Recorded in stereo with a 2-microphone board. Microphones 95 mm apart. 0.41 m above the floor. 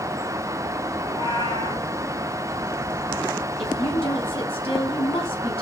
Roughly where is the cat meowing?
Left.